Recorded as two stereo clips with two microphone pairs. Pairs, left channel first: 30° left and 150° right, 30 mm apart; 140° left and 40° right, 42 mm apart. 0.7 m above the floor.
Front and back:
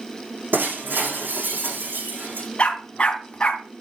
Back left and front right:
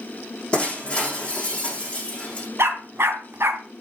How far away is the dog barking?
About 2.5 m.